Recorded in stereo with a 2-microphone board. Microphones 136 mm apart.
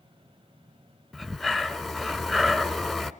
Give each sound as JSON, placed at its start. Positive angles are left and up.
{"t": 1.1, "sound": "breathing", "side_deg": 0, "distance_m": 0.6}